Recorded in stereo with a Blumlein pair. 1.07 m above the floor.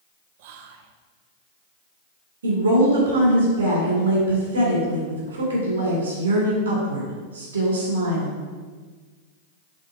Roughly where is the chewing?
I don't hear chewing.